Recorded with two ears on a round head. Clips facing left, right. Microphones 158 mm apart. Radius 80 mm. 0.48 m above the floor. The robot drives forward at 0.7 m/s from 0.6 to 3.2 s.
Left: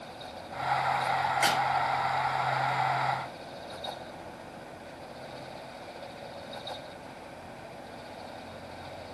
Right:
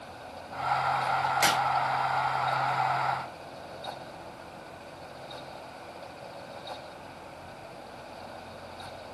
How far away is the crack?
About 5 m.